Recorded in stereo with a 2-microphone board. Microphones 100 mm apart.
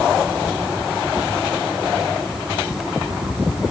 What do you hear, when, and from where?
Only background noise.